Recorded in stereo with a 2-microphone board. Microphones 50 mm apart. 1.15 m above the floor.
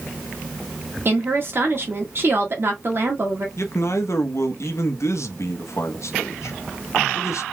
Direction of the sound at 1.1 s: 50° right (ahead or behind).